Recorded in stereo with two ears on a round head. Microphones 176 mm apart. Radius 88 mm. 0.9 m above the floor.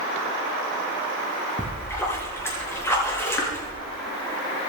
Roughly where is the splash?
Centre.